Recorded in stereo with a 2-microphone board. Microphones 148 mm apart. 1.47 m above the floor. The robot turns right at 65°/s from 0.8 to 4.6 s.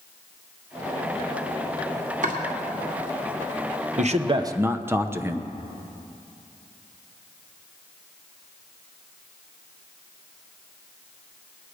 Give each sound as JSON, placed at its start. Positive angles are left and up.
{"t": 2.2, "sound": "chopping", "side_deg": -60, "distance_m": 2.0}
{"t": 4.0, "sound": "a man speaking", "azimuth_deg": -60, "distance_m": 0.8}